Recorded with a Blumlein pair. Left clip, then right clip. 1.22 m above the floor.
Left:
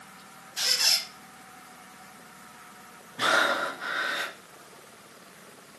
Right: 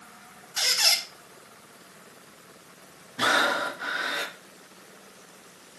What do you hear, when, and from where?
0.6 s a squeak: 50° right, 1.1 m
3.2 s breathing: 10° right, 0.6 m